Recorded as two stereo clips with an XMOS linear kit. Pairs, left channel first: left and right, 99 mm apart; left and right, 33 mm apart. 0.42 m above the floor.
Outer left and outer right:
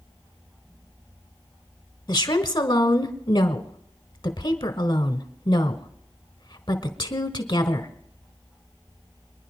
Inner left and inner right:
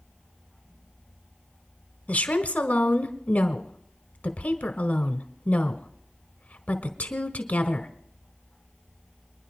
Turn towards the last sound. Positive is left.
turn(degrees=50)  # may be behind; listen again after turning